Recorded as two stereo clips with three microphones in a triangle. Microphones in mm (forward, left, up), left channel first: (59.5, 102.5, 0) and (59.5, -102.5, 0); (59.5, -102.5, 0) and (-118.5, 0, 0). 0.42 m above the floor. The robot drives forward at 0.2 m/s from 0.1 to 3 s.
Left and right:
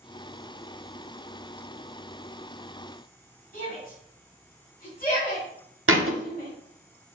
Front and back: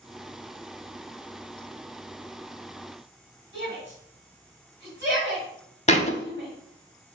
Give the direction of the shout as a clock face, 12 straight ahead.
8 o'clock.